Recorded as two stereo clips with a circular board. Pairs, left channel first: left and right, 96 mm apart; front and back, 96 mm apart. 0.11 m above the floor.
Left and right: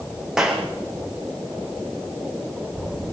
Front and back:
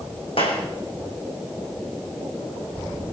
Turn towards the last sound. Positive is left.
turn(degrees=-5)